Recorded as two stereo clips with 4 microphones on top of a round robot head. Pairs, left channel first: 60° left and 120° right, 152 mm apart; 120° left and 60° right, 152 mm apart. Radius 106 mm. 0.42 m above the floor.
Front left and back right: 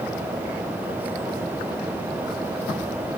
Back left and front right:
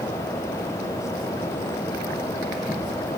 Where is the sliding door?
No sliding door in this recording.